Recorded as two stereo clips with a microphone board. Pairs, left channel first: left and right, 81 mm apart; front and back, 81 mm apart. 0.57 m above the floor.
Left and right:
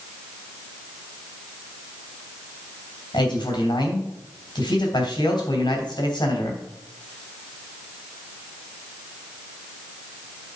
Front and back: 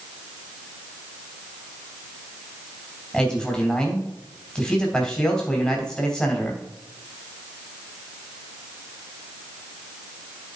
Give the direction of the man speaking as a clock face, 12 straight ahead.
9 o'clock.